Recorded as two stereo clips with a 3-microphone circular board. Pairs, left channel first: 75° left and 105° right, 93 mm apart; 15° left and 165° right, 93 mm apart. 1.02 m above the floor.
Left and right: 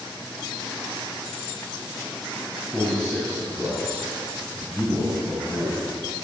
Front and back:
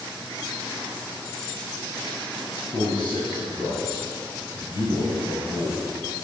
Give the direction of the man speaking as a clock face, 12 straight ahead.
12 o'clock.